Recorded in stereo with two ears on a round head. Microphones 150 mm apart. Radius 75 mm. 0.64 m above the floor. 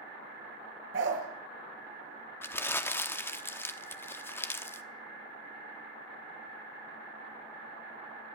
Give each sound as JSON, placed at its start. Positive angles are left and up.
{"t": 0.9, "sound": "a dog barking", "side_deg": -80, "distance_m": 5.0}
{"t": 2.4, "sound": "crumpling", "side_deg": 15, "distance_m": 0.9}